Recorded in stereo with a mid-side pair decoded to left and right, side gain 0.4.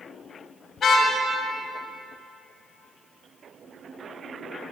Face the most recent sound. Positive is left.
turn(degrees=60)